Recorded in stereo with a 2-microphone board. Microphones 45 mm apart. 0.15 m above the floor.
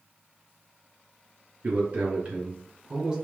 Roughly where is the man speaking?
Right.